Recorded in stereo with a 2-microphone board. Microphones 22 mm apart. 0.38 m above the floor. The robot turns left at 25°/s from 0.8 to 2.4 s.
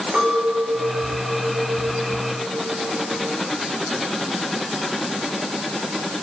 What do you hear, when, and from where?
0.1 s a clink: 95° right, 5 m; by 3.3 s 135° right, 5 m